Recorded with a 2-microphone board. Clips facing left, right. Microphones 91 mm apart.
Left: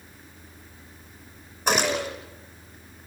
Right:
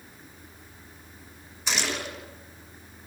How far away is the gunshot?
About 5.5 m.